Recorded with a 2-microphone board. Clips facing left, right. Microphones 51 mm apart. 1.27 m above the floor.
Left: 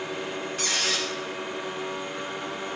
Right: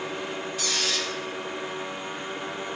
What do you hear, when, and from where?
0.6 s a squeak: 45° left (ahead or behind), 1.2 m